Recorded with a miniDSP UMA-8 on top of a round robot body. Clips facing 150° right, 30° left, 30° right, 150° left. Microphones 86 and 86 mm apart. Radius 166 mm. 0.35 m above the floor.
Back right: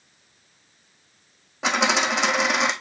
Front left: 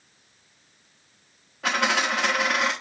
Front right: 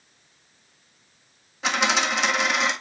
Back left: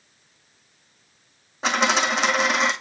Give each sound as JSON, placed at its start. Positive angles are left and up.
{"t": 1.6, "sound": "a dropped coin", "azimuth_deg": -155, "distance_m": 1.3}